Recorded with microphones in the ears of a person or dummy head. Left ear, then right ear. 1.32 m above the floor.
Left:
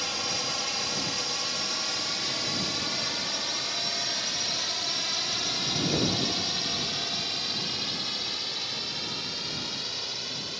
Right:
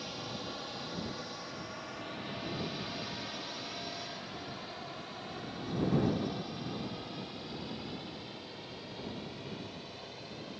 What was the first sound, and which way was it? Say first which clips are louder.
A drone: left 12 dB; 55° left (ahead or behind).